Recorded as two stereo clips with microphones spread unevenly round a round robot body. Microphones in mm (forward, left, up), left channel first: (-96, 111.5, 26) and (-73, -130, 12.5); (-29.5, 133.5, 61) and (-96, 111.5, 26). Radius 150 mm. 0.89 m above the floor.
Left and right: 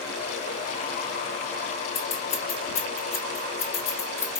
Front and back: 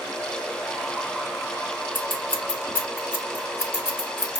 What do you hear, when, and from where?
1.9 s scissors: 30° left, 0.7 m